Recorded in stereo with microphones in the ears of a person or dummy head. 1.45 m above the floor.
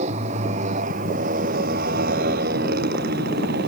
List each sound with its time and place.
0.0 s a motorcycle: 45° right (ahead or behind); by 3.7 s 60° right (ahead or behind)